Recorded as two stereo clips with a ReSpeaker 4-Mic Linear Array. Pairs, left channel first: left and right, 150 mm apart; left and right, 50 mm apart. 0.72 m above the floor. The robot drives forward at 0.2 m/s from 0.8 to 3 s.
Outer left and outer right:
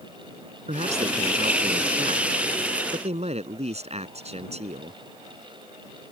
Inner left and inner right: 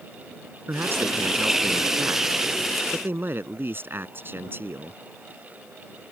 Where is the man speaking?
45° right (ahead or behind).